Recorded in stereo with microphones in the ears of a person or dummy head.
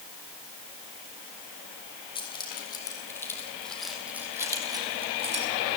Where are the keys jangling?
20° left (ahead or behind), 3.5 m; by 5.5 s 40° right (ahead or behind), 2.5 m.